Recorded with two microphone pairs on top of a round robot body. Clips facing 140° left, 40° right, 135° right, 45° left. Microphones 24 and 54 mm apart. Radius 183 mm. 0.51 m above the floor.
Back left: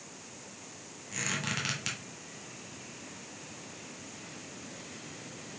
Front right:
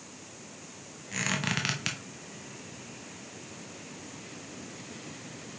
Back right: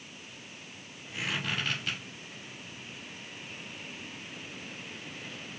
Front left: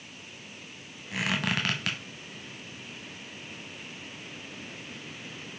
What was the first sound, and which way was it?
A squeak, 25° left.